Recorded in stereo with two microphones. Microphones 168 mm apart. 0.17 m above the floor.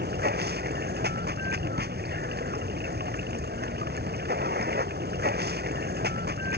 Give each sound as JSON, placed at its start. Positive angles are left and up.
{"t": 0.0, "sound": "running water", "side_deg": -70}